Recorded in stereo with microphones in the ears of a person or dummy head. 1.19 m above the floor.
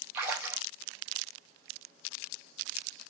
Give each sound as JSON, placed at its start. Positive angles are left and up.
{"t": 0.1, "sound": "a splash", "side_deg": -10, "distance_m": 2.5}